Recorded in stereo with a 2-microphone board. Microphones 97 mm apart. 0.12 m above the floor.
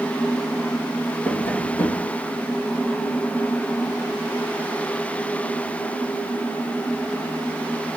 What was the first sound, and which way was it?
Tapping, 20° left (ahead or behind).